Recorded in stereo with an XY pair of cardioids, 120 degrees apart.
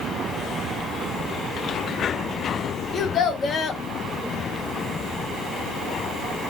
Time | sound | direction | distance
2.9 | a child speaking | 50° left | 1.2 m